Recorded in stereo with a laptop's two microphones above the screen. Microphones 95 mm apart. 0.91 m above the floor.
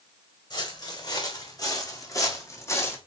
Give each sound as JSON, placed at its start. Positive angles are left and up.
{"t": 0.5, "sound": "footsteps", "side_deg": 50, "distance_m": 3.0}